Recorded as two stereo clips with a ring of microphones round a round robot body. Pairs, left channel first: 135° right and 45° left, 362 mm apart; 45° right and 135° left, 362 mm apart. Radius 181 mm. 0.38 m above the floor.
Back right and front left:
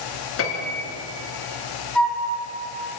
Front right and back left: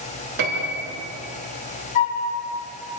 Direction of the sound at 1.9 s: 45° right.